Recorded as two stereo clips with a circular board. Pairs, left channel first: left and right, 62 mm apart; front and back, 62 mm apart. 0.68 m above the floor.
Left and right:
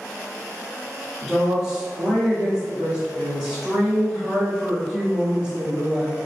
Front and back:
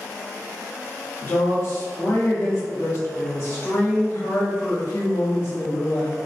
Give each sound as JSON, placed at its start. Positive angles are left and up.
{"t": 1.2, "sound": "a woman speaking", "azimuth_deg": -15, "distance_m": 1.5}